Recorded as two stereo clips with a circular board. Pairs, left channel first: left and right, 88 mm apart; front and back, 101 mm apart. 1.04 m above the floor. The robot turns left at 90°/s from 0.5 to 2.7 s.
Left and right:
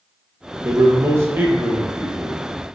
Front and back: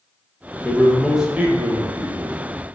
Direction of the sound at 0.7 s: 55° right.